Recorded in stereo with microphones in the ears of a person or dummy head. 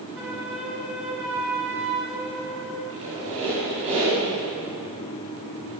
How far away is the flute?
About 4.5 m.